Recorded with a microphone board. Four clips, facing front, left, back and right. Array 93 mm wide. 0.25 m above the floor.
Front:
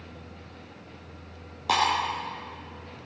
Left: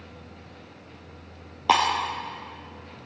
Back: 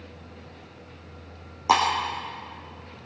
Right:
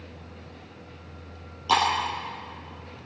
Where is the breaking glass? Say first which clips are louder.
Left 2 dB, back 4 dB; 110° left, 4 m.